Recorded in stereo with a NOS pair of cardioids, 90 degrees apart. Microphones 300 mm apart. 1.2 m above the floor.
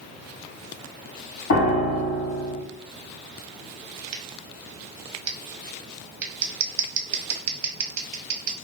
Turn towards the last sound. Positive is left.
turn(degrees=-65)